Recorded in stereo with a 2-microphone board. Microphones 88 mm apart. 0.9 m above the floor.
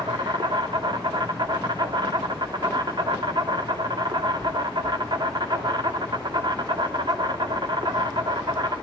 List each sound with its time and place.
0.0 s an insect: 55° right (ahead or behind), 2.5 m